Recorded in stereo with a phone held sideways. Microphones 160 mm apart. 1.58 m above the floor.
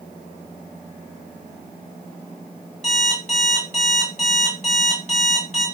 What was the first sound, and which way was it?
An alarm clock, 45° left (ahead or behind).